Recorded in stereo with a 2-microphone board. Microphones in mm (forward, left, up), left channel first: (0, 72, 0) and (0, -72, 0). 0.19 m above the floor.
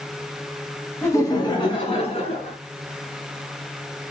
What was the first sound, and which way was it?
Laughter, 20° left (ahead or behind).